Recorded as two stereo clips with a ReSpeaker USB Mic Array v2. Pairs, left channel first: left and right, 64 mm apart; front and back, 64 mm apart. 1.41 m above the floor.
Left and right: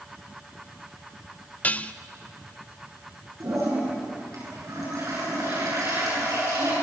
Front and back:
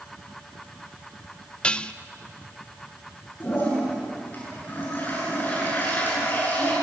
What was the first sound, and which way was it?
Dishes clattering, 55° left.